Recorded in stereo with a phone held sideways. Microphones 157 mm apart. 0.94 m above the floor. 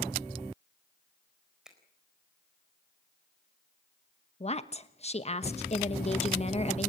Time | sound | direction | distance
1.6 | a finger snap | 5° right (ahead or behind) | 4 m
4.4 | a woman speaking | 40° left (ahead or behind) | 1.2 m